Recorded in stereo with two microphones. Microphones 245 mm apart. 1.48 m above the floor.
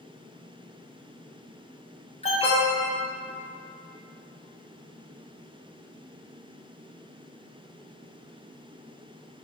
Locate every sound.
2.2 s an alarm: 25° left (ahead or behind), 0.8 m